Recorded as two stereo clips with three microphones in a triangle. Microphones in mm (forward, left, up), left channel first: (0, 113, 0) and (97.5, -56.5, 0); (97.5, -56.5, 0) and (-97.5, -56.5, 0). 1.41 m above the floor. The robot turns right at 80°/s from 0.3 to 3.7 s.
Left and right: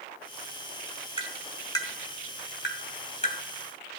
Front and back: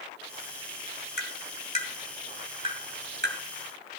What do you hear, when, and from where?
1.2 s tapping: 5° left, 2.5 m; by 3.4 s straight behind, 2.5 m